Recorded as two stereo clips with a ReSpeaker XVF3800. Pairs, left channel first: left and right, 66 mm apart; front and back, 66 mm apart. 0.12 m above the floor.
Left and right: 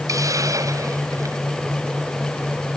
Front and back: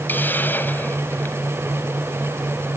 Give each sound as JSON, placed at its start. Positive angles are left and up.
{"t": 0.1, "sound": "a hiss", "azimuth_deg": -60}